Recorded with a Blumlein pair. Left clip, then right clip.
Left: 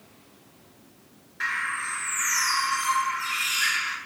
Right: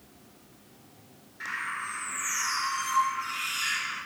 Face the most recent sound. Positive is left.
turn(degrees=65)